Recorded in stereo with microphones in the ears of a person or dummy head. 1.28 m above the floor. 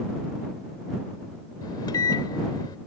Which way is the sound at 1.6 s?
20° left (ahead or behind).